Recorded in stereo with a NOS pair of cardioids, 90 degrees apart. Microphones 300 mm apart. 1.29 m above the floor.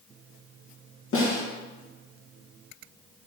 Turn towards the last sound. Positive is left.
turn(degrees=45)